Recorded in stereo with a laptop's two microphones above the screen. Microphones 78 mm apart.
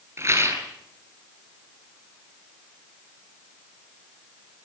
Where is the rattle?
30° right (ahead or behind), 8 m.